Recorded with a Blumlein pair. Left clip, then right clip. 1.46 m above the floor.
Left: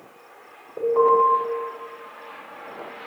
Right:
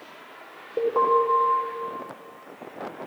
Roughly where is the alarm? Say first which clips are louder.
Left 3 dB; ahead.